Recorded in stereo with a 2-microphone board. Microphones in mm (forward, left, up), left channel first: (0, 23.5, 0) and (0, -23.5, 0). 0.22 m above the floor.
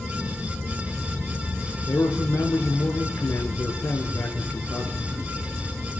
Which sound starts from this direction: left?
A man speaking, at 1.9 s.